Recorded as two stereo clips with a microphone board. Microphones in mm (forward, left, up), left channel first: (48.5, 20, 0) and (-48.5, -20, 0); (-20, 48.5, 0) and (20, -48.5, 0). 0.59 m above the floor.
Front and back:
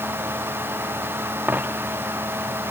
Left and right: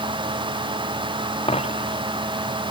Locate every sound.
1.5 s a dropped coin: 130° left